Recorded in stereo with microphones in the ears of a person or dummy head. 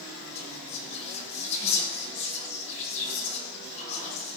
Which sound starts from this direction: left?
Whispering, at 0.3 s.